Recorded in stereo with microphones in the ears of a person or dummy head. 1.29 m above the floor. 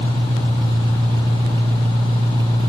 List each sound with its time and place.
0.0 s an engine running: 20° right (ahead or behind), 1.5 m